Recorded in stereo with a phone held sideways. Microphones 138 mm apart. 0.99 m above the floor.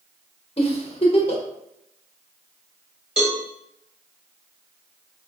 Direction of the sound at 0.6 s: 40° left (ahead or behind).